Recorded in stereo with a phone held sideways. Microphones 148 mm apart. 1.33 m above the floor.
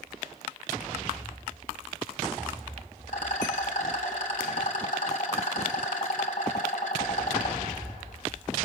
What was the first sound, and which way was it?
A rattle, 60° left (ahead or behind).